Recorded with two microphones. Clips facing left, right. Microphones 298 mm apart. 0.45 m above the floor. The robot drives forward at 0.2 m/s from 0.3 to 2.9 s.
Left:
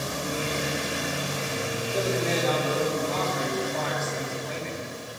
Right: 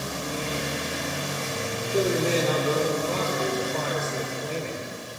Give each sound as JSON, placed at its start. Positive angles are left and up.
{"t": 1.9, "sound": "a man speaking", "side_deg": -40, "distance_m": 9.5}